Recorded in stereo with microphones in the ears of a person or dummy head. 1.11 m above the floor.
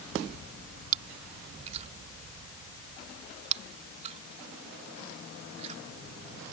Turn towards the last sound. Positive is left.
turn(degrees=-35)  # may be behind; listen again after turning